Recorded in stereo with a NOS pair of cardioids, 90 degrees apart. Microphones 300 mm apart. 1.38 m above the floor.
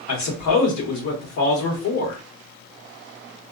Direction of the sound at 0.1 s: 70° left.